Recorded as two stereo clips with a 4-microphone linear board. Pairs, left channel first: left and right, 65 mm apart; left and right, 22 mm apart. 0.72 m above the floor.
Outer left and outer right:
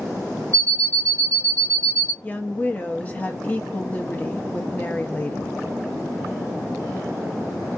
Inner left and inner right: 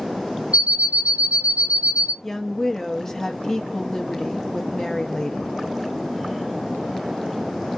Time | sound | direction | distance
0.5 | an alarm clock | 55° right (ahead or behind) | 0.7 m
2.2 | a woman speaking | 25° left (ahead or behind) | 0.5 m